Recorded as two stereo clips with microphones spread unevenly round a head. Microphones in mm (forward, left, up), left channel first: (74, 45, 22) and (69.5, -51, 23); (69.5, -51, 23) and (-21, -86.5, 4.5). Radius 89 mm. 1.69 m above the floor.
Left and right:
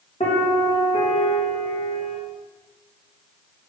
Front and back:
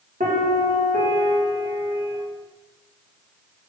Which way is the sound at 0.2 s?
150° left.